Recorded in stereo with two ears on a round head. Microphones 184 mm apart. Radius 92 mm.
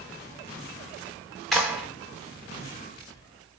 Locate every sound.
1.5 s a clap: centre (ahead or behind), 3 m